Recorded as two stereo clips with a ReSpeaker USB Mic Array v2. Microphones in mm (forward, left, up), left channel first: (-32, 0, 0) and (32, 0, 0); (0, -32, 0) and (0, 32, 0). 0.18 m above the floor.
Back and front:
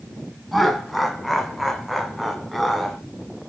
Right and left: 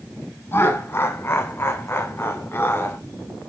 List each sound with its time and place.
0.5 s laughter: 90° right, 1.5 m